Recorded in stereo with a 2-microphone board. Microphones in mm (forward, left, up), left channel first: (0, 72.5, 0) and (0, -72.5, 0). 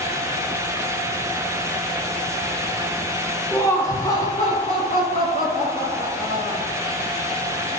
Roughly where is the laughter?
Centre.